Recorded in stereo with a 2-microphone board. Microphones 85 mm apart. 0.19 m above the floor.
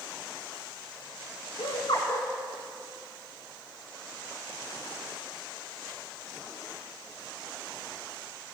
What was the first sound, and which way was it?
Laughter, 85° left.